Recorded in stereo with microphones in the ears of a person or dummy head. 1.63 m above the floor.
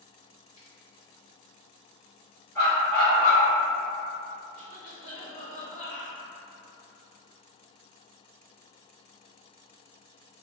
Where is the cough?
40° left (ahead or behind), 1.2 m.